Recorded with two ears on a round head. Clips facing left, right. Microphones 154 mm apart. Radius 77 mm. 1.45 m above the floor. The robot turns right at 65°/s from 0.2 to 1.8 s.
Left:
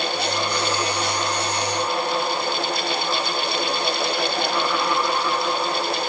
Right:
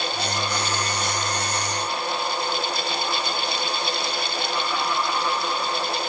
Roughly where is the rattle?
I don't hear a rattle.